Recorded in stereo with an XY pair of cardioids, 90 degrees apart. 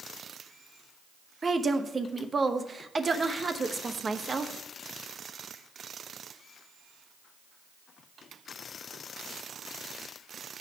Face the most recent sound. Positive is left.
turn(degrees=-35)